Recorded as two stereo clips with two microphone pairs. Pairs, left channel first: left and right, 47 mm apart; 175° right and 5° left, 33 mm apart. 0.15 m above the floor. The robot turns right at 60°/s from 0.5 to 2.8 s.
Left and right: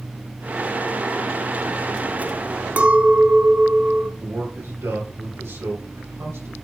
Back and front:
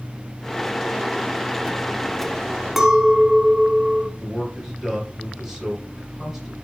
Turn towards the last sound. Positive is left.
turn(degrees=-75)